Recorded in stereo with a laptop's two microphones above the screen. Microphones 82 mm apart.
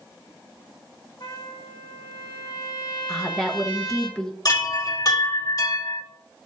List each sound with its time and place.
1.2 s a trumpet: 65° left (ahead or behind), 1.8 m
3.1 s a woman speaking: 10° left (ahead or behind), 0.9 m
4.5 s a chime: 45° left (ahead or behind), 2 m